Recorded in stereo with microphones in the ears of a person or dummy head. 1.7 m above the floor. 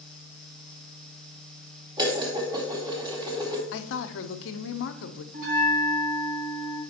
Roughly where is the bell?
Right.